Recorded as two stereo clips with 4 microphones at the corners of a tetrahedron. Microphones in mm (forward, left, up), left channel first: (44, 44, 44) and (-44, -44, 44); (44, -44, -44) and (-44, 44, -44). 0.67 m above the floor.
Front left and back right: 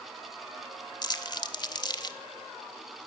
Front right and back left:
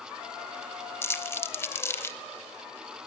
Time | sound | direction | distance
1.0 | crumpling | 20° left | 0.5 m